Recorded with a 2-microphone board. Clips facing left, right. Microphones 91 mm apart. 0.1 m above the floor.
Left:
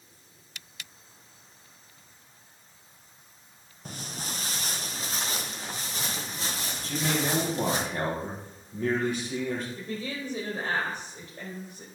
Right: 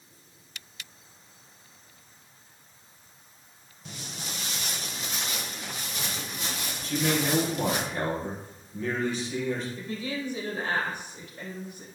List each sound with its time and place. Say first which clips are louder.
3.9 s footsteps: left 2 dB; 45° left (ahead or behind), 0.9 m; by 7.8 s 35° left (ahead or behind), 3.5 m
6.8 s a man speaking: right 2 dB; 55° left (ahead or behind), 3 m
9.8 s a woman speaking: right 1 dB; 40° left (ahead or behind), 3.5 m